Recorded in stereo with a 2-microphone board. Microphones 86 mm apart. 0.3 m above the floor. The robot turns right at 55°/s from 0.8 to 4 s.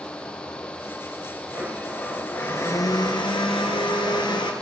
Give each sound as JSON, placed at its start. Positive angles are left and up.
{"t": 1.5, "sound": "a blender", "azimuth_deg": -25, "distance_m": 3.0}